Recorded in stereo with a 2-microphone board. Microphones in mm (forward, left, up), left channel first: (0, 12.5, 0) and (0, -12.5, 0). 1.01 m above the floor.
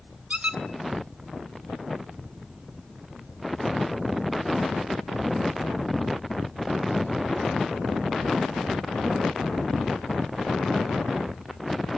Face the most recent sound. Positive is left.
turn(degrees=-60)  # may be behind; listen again after turning